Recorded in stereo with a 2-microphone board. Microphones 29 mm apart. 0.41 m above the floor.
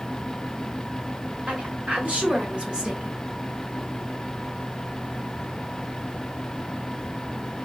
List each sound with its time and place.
1.5 s a woman speaking: 60° right (ahead or behind), 1.8 m; by 3.2 s 20° right (ahead or behind), 1.0 m